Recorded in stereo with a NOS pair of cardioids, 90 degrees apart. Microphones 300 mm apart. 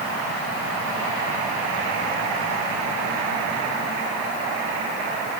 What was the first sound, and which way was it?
Only background noise.